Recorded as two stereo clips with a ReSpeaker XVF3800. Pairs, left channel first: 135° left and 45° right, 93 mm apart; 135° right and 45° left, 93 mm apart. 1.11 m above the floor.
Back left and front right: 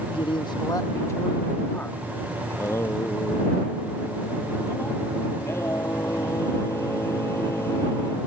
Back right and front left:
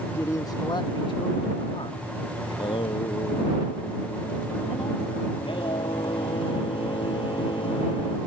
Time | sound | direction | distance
0.1 | a man speaking | 160° left | ?
2.5 | singing | 165° right | ?